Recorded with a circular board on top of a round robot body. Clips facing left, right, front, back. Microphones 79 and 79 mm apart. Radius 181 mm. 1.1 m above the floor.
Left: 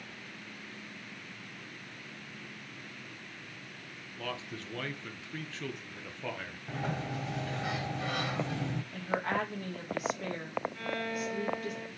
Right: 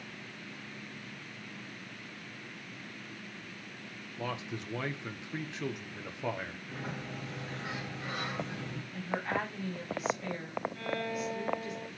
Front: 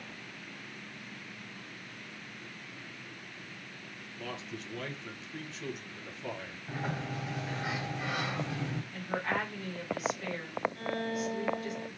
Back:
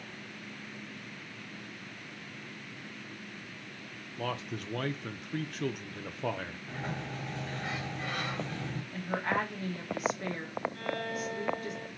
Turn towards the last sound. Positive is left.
turn(degrees=145)